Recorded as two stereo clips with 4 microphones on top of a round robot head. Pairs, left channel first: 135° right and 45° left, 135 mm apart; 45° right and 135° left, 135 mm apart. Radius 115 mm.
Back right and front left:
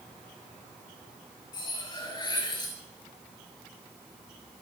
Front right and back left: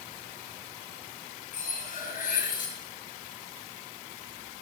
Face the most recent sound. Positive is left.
turn(degrees=-70)